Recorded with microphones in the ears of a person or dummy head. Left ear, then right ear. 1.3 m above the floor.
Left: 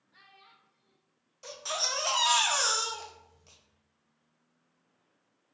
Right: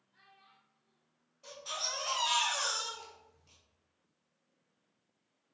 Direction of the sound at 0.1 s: 55° left (ahead or behind).